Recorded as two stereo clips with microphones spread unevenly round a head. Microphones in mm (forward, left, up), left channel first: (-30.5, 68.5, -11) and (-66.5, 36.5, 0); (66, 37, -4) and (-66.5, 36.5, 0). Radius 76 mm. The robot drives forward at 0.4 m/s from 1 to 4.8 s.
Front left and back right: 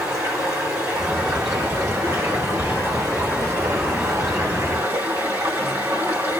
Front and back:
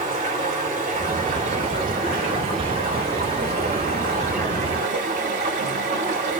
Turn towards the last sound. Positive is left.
turn(degrees=-150)